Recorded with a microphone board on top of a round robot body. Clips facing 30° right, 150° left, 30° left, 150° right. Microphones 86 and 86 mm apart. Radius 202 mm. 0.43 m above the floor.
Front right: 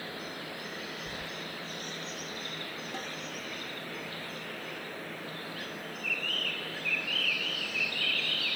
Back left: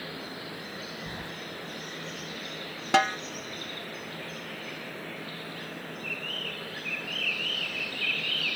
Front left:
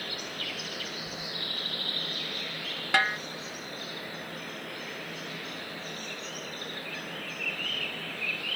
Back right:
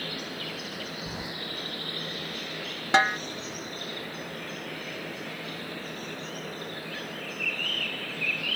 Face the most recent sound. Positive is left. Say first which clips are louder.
# back left 20 dB, back right 4 dB
turn(degrees=145)